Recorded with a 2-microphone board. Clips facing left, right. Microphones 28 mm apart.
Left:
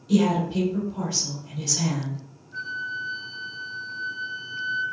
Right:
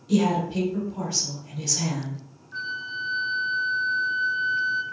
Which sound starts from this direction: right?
A flute, at 2.5 s.